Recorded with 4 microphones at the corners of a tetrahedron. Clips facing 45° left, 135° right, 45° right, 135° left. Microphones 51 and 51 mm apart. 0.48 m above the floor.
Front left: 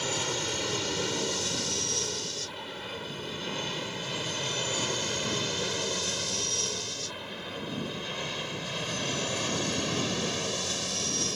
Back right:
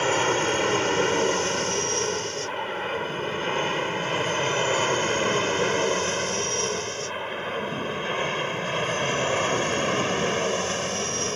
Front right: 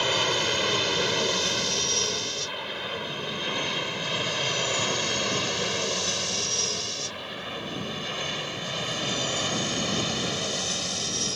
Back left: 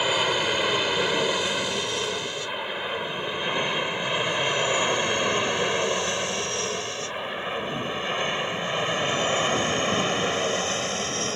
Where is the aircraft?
150° right; by 11.4 s 175° right.